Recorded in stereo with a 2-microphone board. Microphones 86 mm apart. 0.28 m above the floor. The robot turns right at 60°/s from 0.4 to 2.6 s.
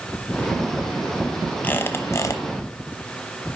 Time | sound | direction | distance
1.6 | a squeak | 30° left | 0.7 m